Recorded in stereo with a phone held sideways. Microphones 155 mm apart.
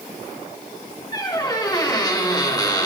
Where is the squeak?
25° left (ahead or behind), 2.5 m.